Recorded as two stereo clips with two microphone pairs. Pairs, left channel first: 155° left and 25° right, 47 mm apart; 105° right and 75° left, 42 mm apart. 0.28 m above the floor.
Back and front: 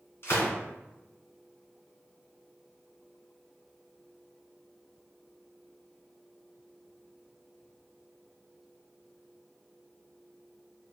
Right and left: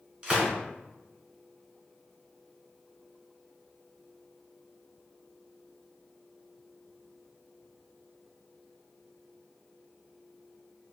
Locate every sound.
0.2 s a gunshot: 135° left, 1.2 m